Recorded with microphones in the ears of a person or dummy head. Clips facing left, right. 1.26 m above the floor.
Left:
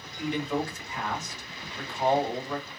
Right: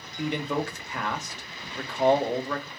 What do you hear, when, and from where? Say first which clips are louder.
0.2 s a man speaking: right 1 dB; 60° right (ahead or behind), 0.9 m